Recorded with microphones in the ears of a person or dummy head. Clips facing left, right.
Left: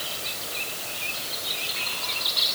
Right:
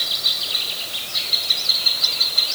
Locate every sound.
Only background noise.